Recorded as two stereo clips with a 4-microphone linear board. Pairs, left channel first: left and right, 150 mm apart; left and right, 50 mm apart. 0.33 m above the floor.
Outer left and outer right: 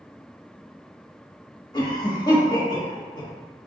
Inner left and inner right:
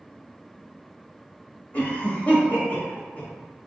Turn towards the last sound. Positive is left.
turn(degrees=30)  # may be behind; listen again after turning